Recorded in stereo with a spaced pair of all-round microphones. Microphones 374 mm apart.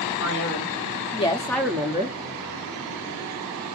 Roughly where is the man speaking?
Left.